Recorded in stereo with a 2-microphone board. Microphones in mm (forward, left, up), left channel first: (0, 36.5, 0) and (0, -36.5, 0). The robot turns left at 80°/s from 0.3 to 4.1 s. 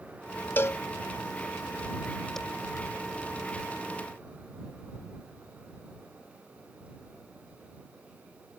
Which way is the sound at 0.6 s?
30° left (ahead or behind).